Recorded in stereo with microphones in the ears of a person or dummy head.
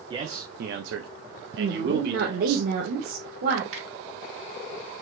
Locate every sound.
0.1 s a man speaking: 20° right (ahead or behind), 0.6 m; by 2.6 s 60° right (ahead or behind), 1.5 m
1.6 s a woman speaking: 55° right (ahead or behind), 0.9 m
3.7 s a finger snap: 85° right, 2.5 m